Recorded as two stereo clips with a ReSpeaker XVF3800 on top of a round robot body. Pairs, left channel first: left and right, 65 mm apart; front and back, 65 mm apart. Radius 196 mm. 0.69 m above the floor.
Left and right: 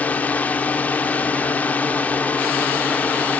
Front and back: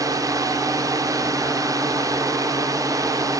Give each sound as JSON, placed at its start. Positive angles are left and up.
{"t": 0.0, "sound": "a drone", "azimuth_deg": 155}